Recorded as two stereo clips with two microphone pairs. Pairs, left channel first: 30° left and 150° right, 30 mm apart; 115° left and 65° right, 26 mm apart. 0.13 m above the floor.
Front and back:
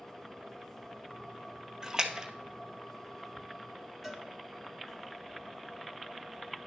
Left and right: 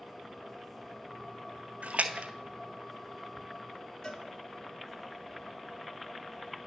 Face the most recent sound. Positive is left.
turn(degrees=140)